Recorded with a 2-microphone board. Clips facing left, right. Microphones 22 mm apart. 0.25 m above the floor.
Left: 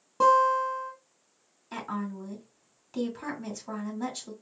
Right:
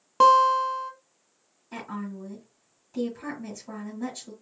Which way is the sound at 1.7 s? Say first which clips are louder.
Left 1 dB; 45° left (ahead or behind).